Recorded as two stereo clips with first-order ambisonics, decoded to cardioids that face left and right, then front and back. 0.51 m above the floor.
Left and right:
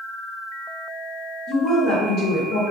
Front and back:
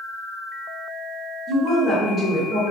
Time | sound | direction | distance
1.5 | a woman speaking | 105° left | 0.9 m